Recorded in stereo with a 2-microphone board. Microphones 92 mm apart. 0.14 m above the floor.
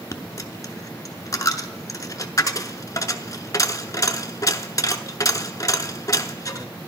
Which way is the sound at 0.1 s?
40° left (ahead or behind).